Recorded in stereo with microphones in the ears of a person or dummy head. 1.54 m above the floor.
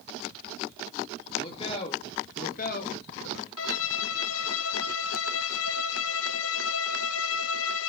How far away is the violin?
About 0.8 m.